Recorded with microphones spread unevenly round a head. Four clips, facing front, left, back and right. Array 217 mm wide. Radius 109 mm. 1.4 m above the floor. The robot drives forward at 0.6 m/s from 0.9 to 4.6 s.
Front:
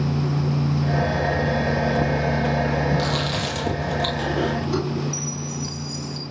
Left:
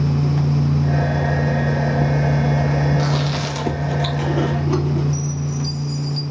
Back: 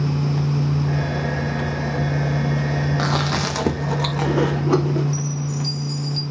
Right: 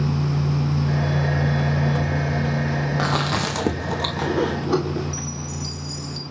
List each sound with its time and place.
3.0 s chewing: 130° right, 1.3 m; by 5.0 s 150° right, 2 m
5.1 s a chime: 165° right, 3.5 m